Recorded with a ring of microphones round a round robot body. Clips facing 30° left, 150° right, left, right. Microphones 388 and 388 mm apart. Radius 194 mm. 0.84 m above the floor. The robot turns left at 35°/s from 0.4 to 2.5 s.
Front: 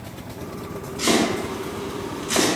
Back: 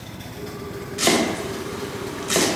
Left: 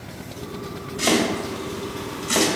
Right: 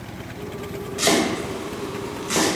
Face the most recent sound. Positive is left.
turn(degrees=160)